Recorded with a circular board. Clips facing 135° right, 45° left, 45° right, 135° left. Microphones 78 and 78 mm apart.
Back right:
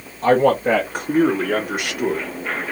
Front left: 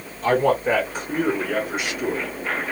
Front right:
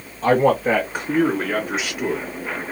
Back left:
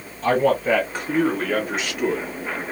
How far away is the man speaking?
About 1.0 m.